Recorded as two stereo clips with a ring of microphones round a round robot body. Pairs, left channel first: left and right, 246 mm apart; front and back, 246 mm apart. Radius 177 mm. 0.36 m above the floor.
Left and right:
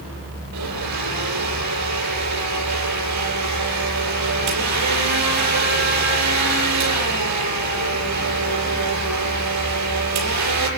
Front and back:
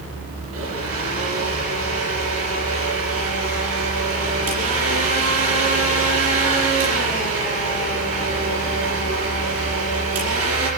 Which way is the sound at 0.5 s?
130° right.